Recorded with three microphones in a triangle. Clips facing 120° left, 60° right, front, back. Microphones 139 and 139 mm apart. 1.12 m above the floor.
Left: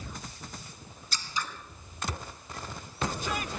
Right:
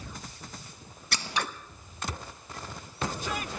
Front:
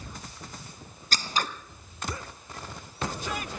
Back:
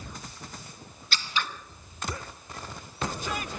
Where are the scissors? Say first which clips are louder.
Right 4 dB, front 2 dB; 45° right, 0.9 m.